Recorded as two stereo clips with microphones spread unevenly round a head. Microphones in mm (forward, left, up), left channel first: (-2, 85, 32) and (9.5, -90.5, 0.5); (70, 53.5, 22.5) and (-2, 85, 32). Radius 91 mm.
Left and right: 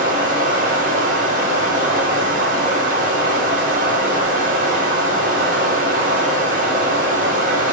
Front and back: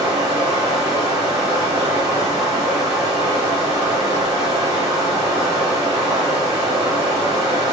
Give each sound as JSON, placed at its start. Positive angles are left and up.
{"t": 0.0, "sound": "running water", "azimuth_deg": -135, "distance_m": 4.5}